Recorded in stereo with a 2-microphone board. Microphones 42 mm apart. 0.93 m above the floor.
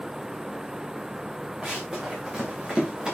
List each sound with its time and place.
1.6 s running footsteps: 10° right (ahead or behind), 4.5 m